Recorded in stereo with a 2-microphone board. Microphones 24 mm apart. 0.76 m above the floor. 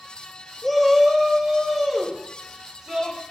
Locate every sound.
0.6 s a shout: 10° left (ahead or behind), 1.0 m; by 3.2 s 15° right (ahead or behind), 3 m